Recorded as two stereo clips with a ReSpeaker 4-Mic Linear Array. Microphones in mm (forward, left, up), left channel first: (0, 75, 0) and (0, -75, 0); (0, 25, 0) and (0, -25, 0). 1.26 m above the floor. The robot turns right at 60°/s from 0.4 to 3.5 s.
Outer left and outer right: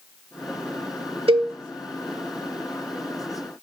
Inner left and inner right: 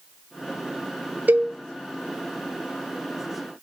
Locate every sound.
1.3 s a cowbell: 40° right (ahead or behind), 0.7 m; by 1.5 s 25° right (ahead or behind), 0.7 m